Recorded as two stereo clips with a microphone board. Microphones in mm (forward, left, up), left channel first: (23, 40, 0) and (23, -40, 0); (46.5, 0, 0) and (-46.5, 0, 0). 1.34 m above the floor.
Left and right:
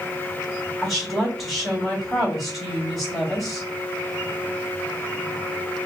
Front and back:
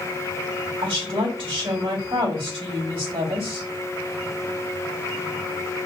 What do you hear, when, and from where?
0.8 s a woman speaking: straight behind, 2.5 m